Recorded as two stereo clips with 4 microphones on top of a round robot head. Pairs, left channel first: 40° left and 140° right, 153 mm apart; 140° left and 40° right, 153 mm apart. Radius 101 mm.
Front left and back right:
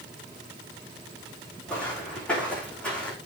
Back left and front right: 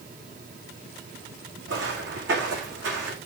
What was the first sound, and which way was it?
Footsteps, 40° right.